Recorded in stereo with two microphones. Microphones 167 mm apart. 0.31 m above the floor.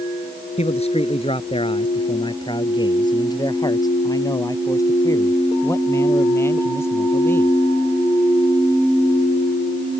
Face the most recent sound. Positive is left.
turn(degrees=15)  # may be behind; listen again after turning